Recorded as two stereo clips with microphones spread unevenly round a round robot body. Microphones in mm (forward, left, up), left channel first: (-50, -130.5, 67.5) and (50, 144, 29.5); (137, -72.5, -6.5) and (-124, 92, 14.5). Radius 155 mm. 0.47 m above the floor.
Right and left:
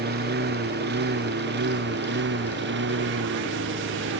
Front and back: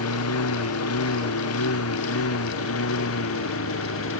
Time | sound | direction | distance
0.0 | a lawn mower | 10° left | ?